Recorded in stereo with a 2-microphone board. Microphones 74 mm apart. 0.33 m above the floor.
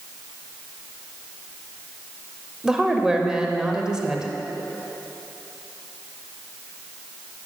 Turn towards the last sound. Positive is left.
turn(degrees=-10)  # may be behind; listen again after turning